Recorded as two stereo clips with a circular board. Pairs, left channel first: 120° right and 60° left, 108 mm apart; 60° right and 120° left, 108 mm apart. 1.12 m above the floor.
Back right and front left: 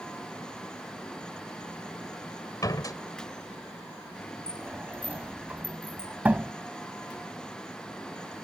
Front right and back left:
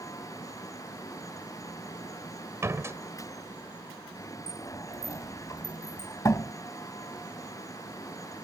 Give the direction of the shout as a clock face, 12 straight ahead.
I don't hear a shout.